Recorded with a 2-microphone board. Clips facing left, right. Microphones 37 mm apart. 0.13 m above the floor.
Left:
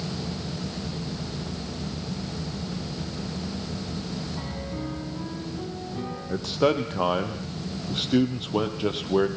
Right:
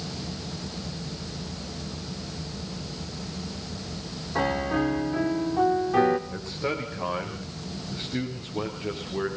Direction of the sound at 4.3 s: 70° right (ahead or behind).